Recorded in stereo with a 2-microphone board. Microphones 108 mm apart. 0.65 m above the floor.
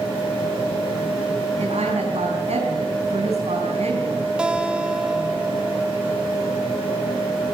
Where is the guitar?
10° right (ahead or behind), 1.7 m.